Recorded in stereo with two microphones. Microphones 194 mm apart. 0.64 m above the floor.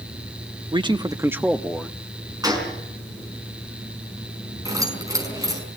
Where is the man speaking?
25° right (ahead or behind), 1.0 m; by 2.0 s 10° left (ahead or behind), 1.2 m.